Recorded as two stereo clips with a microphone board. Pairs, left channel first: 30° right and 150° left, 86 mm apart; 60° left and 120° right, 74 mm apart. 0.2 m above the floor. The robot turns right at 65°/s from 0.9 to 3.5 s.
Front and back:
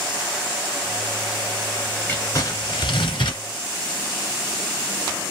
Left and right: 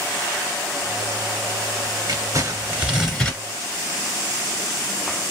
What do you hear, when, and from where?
2.1 s crumpling: 95° right, 2 m; by 3.4 s 10° right, 2 m